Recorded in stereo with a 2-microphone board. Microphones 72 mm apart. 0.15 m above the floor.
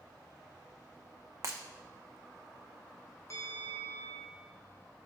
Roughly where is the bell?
Left.